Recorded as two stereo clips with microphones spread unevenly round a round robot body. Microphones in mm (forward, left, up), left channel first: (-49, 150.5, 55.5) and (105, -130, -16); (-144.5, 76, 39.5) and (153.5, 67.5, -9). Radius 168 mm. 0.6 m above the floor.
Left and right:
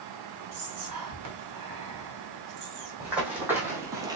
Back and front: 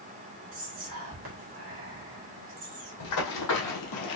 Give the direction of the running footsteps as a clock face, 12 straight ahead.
5 o'clock.